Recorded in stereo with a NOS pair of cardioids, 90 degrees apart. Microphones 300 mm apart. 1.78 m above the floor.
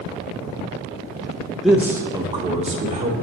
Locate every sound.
1.6 s a man speaking: straight ahead, 1.0 m; by 3.1 s 25° right, 1.6 m